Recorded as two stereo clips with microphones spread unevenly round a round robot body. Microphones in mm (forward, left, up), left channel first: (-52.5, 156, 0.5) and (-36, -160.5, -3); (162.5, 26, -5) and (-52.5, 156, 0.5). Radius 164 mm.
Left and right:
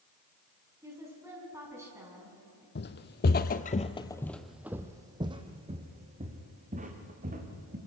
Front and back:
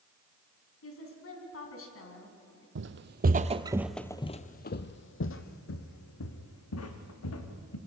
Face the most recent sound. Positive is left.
turn(degrees=-20)